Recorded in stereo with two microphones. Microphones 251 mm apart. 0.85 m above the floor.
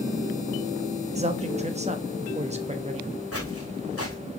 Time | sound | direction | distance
1.1 | a man speaking | 25° right (ahead or behind) | 1.1 m
3.3 | footsteps | 65° left (ahead or behind) | 4 m